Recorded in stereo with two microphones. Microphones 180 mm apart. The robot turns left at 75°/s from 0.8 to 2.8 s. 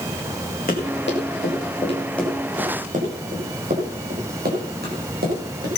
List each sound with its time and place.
0.7 s running footsteps: 55° left (ahead or behind), 6.5 m; by 5.7 s 65° right (ahead or behind), 9 m